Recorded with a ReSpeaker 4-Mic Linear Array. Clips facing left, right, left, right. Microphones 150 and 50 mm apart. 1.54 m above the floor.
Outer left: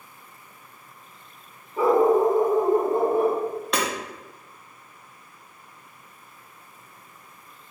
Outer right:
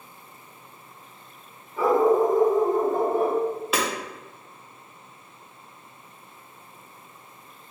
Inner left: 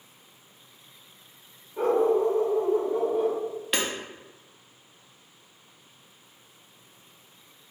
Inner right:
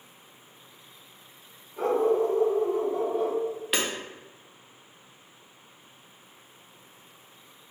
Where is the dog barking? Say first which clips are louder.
Outer left 1 dB, inner left 1 dB; 15° left (ahead or behind), 1.0 m.